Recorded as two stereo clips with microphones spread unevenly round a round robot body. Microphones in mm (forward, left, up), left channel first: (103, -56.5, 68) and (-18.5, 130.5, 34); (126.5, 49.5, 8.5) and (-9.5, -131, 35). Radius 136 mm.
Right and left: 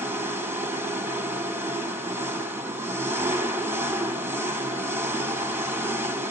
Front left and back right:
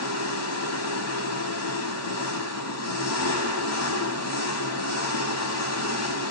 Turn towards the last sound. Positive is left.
turn(degrees=45)